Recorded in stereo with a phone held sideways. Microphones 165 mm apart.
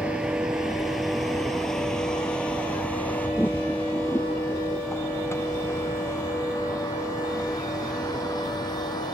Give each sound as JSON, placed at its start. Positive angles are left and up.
{"t": 0.0, "sound": "a vehicle", "side_deg": -5}